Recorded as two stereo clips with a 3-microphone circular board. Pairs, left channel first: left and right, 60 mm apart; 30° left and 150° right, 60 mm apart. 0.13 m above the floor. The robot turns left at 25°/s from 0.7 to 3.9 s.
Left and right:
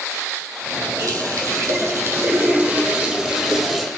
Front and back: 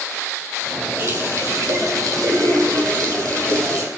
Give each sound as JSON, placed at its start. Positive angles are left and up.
{"t": 1.0, "sound": "a running tap", "azimuth_deg": -105, "distance_m": 2.5}